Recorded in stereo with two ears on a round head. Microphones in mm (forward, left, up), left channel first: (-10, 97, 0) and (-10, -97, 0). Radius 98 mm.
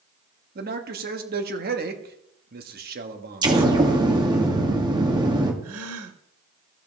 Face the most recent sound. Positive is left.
turn(degrees=-70)  # may be behind; listen again after turning